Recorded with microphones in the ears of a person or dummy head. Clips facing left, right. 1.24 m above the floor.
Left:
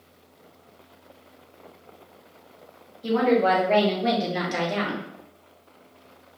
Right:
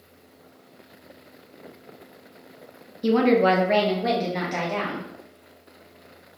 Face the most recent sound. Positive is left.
turn(degrees=20)  # may be behind; listen again after turning